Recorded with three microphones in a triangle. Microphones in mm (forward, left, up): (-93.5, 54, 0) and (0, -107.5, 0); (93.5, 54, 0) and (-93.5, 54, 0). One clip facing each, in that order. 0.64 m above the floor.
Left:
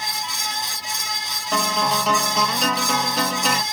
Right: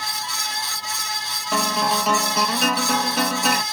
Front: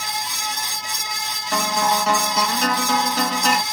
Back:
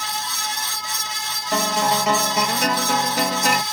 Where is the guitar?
150° right, 1.2 m.